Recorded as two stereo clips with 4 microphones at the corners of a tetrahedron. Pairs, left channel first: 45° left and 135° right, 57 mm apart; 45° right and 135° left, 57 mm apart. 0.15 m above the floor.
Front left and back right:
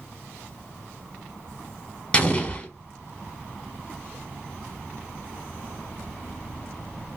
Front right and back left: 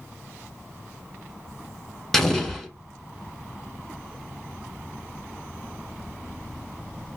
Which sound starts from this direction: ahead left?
An explosion, at 2.1 s.